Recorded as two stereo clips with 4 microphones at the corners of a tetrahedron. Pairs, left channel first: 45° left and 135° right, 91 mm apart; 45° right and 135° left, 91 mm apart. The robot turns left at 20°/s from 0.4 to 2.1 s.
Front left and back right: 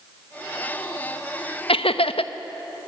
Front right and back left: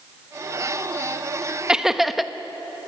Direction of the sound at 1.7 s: 55° left.